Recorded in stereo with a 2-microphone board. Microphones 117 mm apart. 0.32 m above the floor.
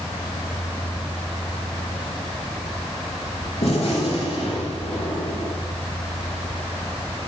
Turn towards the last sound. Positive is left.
turn(degrees=60)  # may be behind; listen again after turning